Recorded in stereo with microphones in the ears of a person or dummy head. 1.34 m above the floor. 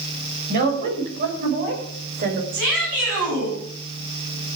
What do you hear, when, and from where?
0.5 s a woman speaking: 50° right (ahead or behind), 6 m
2.5 s a shout: 50° right (ahead or behind), 9 m